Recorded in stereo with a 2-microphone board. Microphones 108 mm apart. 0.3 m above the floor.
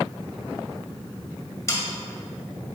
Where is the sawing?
25° left (ahead or behind), 1.7 m.